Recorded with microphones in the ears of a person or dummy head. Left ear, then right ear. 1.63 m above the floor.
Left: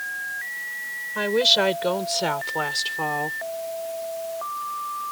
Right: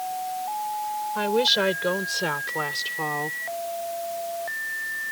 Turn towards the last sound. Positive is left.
turn(degrees=20)  # may be behind; listen again after turning